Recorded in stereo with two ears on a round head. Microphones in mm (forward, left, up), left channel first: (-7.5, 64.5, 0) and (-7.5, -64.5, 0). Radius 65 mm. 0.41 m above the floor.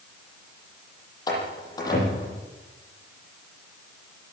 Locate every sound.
1.3 s a door slam: 30° left (ahead or behind), 9.5 m